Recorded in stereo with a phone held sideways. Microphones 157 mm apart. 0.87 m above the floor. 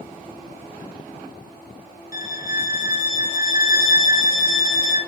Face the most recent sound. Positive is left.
turn(degrees=65)  # may be behind; listen again after turning